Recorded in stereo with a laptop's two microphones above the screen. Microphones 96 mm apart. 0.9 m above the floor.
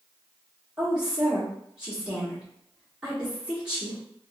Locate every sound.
0.8 s a woman speaking: 5° right (ahead or behind), 1.1 m